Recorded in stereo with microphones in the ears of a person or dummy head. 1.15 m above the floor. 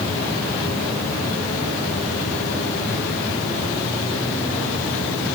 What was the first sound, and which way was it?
Only background noise.